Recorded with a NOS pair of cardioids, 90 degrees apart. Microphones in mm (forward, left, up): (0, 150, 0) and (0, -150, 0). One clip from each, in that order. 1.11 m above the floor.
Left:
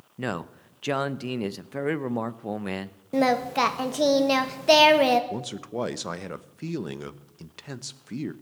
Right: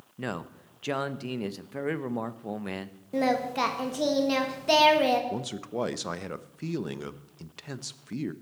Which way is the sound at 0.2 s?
15° left.